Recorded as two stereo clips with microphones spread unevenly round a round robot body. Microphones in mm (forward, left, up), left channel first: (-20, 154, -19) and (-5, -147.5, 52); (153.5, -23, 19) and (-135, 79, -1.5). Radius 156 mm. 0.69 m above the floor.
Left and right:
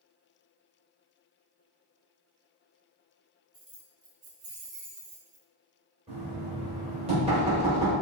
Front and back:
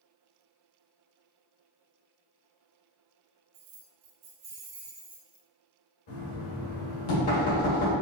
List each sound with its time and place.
3.5 s keys jangling: 165° right, 1.1 m; by 5.5 s 95° right, 1.4 m
6.1 s knocking: 15° right, 1.9 m